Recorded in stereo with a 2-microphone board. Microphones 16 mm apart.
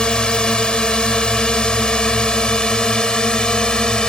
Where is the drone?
65° left (ahead or behind); by 4.1 s 60° left (ahead or behind).